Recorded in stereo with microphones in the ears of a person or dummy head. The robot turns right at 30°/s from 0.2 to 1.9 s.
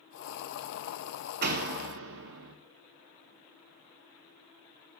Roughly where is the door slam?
Right.